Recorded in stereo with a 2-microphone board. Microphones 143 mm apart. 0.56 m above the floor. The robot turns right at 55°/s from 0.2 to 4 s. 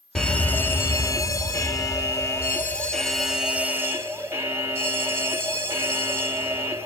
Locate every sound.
0.1 s a fire alarm: 5° left (ahead or behind), 1.7 m; by 6.9 s 15° right (ahead or behind), 1.7 m